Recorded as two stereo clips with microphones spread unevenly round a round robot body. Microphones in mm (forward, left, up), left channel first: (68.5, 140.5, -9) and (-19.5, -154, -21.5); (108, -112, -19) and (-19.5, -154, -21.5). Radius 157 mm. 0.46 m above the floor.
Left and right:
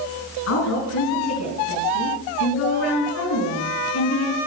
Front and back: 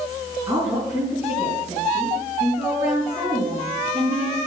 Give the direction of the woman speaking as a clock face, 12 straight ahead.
8 o'clock.